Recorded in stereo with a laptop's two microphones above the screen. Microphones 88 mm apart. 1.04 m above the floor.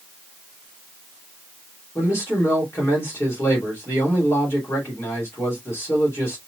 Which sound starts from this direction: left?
A man speaking, at 1.9 s.